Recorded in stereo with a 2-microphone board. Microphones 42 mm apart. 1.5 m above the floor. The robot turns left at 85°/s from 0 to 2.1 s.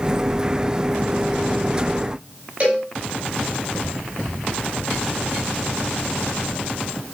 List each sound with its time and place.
2.6 s a cowbell: 30° right (ahead or behind), 8 m